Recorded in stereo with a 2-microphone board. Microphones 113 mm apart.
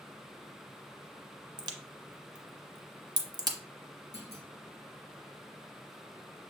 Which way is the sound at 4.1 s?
20° right (ahead or behind).